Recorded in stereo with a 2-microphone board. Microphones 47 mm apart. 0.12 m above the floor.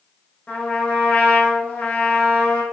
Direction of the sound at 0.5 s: 30° left (ahead or behind).